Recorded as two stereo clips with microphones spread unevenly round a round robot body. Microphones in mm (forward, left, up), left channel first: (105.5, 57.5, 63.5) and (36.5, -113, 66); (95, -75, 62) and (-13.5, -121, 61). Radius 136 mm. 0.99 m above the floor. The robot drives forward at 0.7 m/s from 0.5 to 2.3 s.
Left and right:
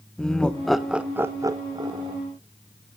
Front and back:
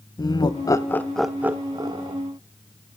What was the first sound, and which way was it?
Laughter, 15° right.